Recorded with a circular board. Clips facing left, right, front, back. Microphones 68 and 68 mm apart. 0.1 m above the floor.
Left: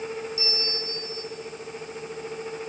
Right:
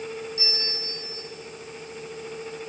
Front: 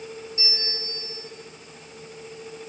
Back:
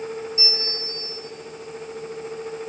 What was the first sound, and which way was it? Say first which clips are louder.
A bell: left 2 dB, back 4 dB; 110° right.